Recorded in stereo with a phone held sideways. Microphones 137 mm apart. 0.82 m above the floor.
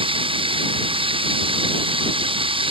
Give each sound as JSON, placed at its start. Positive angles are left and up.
{"t": 0.0, "sound": "running water", "side_deg": -40}